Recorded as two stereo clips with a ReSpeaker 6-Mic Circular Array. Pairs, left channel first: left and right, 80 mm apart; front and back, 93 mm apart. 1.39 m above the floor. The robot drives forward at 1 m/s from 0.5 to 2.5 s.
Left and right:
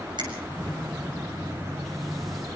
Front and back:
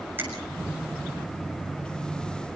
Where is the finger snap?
110° right, 7 m.